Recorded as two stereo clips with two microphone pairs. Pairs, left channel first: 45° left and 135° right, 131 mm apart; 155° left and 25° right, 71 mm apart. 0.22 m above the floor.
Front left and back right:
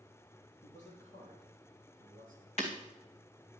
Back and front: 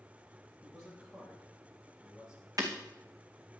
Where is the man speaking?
75° left, 5.5 m; by 2.5 s 55° left, 6.5 m.